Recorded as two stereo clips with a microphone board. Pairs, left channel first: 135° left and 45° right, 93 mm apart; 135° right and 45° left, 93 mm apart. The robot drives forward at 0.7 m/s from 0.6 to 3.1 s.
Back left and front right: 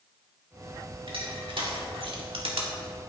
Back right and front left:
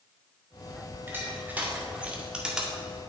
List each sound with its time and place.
1.1 s crushing: 25° right, 2.5 m; by 2.7 s 40° right, 1.7 m